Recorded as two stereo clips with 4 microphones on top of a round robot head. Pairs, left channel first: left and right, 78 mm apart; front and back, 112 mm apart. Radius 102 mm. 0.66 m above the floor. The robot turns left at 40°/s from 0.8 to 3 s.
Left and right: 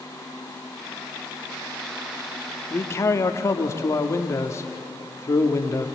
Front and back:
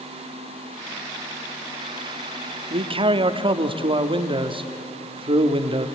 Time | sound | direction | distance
2.7 | a man speaking | 155° left | 1.3 m